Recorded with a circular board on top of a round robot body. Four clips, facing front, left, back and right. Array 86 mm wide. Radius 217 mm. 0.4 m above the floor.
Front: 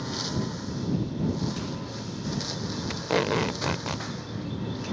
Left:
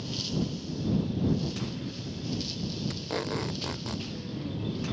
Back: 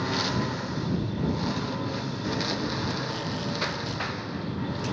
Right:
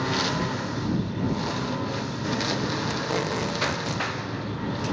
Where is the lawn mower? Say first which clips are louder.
Right 7 dB, back 4 dB; 115° right; by 4.9 s 110° right.